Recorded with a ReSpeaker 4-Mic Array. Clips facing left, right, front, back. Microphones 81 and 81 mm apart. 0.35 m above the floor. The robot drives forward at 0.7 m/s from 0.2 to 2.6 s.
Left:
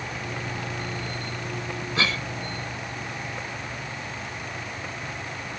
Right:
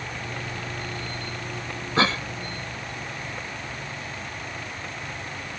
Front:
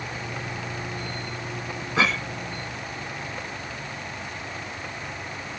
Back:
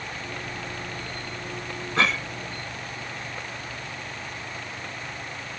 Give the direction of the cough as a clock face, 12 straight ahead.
3 o'clock.